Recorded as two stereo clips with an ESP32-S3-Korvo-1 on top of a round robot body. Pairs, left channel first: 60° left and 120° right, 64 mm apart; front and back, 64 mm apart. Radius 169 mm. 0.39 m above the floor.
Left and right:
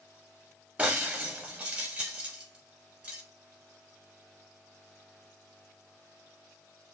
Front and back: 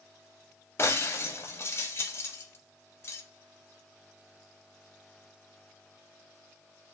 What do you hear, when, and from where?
0.8 s breaking glass: 50° right, 0.9 m